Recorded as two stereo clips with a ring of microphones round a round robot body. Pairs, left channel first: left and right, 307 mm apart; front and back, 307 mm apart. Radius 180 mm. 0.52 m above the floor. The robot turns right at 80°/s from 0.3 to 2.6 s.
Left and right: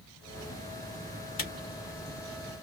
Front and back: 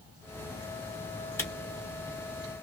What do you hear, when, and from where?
1.4 s a camera shutter: 80° left, 1.6 m; by 1.5 s 90° left, 1.6 m